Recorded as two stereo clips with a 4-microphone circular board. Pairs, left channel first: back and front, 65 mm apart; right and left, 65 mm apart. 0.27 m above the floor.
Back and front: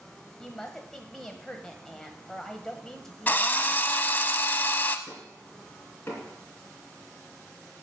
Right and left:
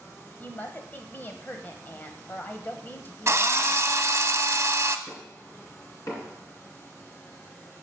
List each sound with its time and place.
0.4 s a woman speaking: 105° right, 1.1 m
3.3 s a drill: 125° left, 0.6 m
5.1 s knocking: 125° right, 2.5 m